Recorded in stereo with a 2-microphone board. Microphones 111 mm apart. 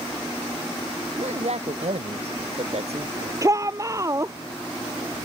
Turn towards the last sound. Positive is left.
turn(degrees=-30)  # may be behind; listen again after turning